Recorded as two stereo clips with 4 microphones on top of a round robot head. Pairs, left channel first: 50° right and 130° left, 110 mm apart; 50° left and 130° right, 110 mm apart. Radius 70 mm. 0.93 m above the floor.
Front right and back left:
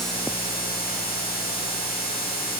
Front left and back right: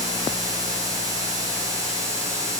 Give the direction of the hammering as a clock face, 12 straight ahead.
I don't hear hammering.